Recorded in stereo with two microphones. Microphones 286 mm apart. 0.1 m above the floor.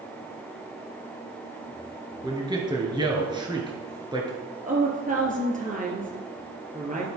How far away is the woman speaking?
About 1.7 m.